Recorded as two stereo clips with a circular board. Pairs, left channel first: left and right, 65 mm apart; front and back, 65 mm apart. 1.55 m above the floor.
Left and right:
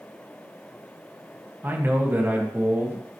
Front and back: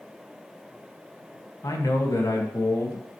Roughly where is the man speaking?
Ahead right.